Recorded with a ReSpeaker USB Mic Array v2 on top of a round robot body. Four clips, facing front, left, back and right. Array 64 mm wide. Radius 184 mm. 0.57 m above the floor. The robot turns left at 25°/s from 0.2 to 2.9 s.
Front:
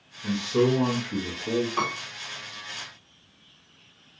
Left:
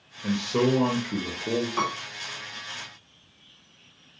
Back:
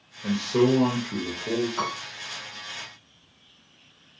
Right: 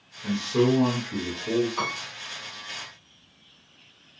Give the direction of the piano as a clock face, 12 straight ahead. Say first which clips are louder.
Left 2 dB, front 2 dB; 10 o'clock.